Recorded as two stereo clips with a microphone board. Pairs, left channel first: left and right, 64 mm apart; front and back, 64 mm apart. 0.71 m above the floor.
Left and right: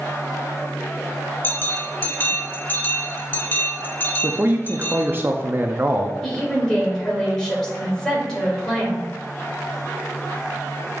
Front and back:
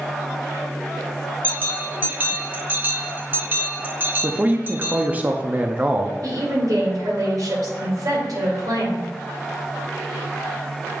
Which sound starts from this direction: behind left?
A bell, at 1.4 s.